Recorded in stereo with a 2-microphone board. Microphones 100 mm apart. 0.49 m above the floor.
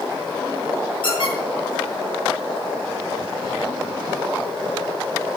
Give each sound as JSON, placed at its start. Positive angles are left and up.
{"t": 1.0, "sound": "a squeak", "side_deg": 55, "distance_m": 5.5}